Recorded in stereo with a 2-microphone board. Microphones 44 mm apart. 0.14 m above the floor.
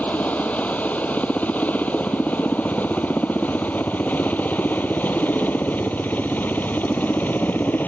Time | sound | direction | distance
0.0 | a helicopter | 35° left (ahead or behind) | ?